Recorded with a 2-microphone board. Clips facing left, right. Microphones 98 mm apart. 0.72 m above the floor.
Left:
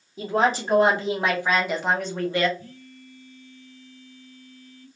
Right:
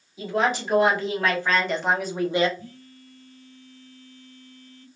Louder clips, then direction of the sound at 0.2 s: Left 2 dB; 40° left (ahead or behind).